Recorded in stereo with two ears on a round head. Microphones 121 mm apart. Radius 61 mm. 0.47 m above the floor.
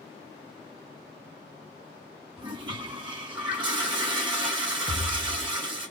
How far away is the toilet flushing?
About 1.2 m.